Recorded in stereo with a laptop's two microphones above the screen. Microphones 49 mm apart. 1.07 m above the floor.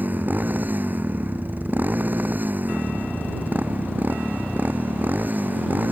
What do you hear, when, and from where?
0.0 s a motorcycle: 40° right (ahead or behind)